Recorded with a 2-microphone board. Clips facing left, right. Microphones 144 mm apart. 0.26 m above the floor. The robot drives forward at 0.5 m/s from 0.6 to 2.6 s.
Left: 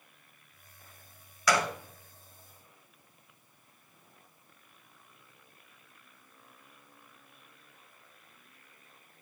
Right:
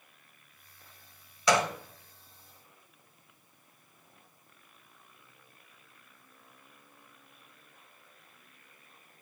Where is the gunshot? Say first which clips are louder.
Right 2 dB; 25° right (ahead or behind), 0.8 m.